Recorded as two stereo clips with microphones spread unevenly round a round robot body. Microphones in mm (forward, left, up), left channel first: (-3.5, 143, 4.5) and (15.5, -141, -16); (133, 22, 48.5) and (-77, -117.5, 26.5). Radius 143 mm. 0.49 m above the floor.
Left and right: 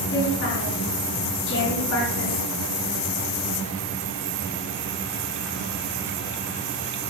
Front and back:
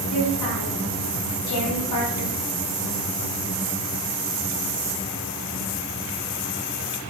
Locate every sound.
0.1 s a woman speaking: 45° left, 5 m